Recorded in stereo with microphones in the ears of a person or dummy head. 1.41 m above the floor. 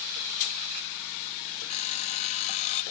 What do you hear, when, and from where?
1.7 s an alarm clock: 35° left (ahead or behind), 0.9 m